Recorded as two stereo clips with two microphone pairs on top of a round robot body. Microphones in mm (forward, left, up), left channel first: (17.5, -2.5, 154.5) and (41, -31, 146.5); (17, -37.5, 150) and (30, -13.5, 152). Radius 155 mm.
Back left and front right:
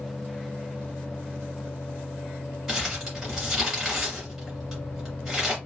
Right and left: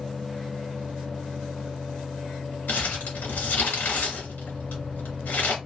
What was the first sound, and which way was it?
Crumpling, 140° right.